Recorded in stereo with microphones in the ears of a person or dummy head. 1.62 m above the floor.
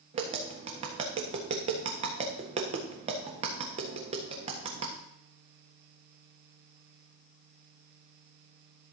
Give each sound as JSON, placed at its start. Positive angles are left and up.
{"t": 0.1, "sound": "tapping", "side_deg": -30, "distance_m": 1.4}